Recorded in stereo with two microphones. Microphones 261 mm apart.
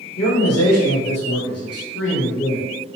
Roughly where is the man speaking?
Left.